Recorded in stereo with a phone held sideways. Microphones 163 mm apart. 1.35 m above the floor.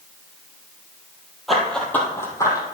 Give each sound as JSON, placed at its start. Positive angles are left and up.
{"t": 1.5, "sound": "running footsteps", "side_deg": 0, "distance_m": 1.8}